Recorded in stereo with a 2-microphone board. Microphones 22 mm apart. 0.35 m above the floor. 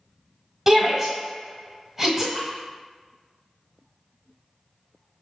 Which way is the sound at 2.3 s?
50° left (ahead or behind).